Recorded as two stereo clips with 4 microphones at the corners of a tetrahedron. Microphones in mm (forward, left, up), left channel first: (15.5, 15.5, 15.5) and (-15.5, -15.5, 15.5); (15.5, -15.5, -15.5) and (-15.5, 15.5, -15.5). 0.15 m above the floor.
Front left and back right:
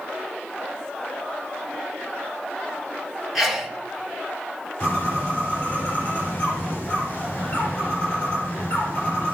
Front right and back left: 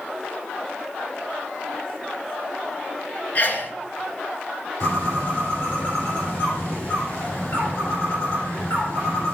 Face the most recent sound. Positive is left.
turn(degrees=-15)